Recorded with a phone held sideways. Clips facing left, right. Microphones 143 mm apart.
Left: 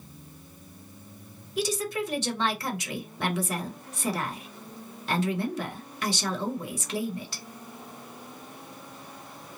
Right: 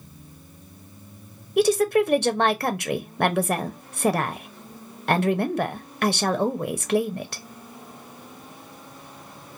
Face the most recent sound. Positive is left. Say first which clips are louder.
# right 11 dB
turn(degrees=-60)  # may be behind; listen again after turning